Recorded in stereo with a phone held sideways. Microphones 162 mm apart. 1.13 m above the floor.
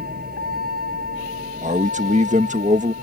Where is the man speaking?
50° right (ahead or behind).